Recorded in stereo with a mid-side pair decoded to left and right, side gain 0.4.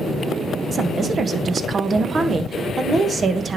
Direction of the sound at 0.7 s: 50° right.